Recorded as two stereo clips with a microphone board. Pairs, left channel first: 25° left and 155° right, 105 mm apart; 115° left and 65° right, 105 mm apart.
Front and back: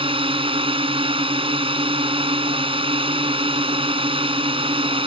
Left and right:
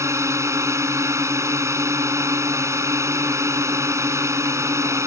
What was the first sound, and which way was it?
A drone, 130° right.